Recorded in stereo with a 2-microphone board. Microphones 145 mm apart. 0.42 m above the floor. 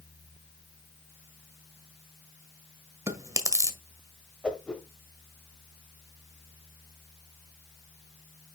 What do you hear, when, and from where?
3.1 s chewing: 20° right (ahead or behind), 1.5 m
4.4 s a whoosh: 5° left (ahead or behind), 1.3 m